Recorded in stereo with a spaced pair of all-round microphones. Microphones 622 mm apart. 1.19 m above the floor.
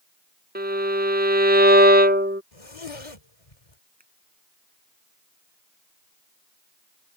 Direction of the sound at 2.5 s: 60° left (ahead or behind).